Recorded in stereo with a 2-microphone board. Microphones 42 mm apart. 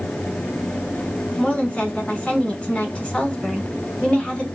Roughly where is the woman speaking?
Left.